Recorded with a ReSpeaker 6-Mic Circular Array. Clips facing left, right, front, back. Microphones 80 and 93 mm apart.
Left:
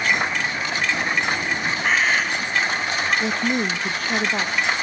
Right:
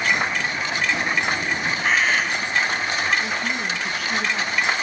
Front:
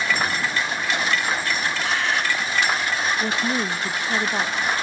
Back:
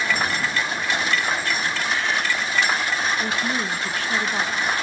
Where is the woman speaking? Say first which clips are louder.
Left 3 dB, front 1 dB; 65° left, 1.0 m.